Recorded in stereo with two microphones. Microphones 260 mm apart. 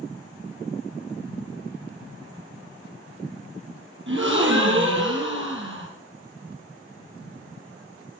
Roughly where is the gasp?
Right.